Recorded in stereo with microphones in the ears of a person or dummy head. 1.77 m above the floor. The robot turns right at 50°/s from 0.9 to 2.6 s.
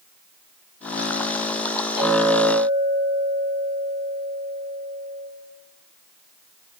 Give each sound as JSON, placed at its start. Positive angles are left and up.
{"t": 2.0, "sound": "a clink", "azimuth_deg": 35, "distance_m": 2.5}